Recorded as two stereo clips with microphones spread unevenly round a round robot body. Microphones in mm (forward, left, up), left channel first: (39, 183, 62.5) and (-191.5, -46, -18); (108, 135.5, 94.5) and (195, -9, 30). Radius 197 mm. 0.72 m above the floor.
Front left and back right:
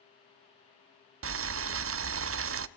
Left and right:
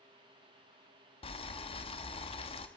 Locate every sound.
1.2 s boiling: 165° right, 0.7 m